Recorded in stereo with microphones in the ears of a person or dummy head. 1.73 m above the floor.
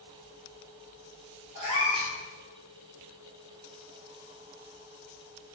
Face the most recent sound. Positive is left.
turn(degrees=-25)  # may be behind; listen again after turning